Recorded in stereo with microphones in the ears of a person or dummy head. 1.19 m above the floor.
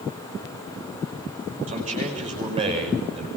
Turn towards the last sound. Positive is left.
turn(degrees=-25)  # may be behind; listen again after turning